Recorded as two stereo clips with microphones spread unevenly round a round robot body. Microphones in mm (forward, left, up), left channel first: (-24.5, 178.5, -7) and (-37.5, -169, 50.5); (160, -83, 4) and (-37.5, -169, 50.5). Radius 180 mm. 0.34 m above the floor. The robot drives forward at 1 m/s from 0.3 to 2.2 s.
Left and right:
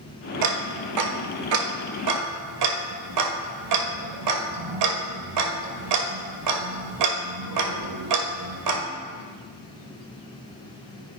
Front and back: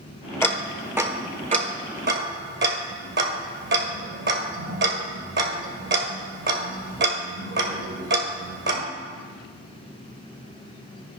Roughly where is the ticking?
Ahead right.